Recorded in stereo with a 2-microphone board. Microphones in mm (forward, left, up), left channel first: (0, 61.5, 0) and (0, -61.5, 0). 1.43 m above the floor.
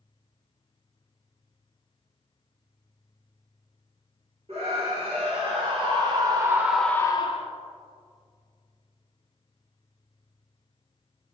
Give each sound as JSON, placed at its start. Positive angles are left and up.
{"t": 4.5, "sound": "a scream", "side_deg": -55, "distance_m": 2.0}